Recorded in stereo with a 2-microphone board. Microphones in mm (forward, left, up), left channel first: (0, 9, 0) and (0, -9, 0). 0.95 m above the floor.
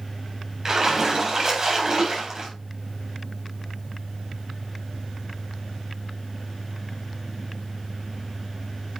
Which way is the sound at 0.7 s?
35° right (ahead or behind).